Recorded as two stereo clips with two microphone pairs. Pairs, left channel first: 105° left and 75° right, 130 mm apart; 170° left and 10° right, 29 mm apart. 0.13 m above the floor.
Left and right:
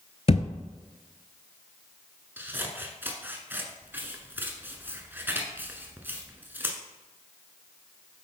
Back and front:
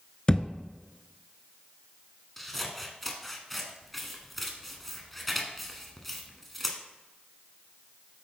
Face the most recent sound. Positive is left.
turn(degrees=-110)